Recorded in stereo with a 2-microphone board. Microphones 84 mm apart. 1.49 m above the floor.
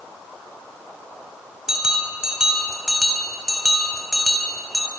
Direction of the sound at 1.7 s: 5° right (ahead or behind).